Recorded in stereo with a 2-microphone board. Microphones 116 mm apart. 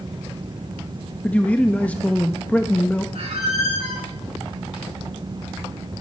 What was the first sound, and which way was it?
A man speaking, 15° left (ahead or behind).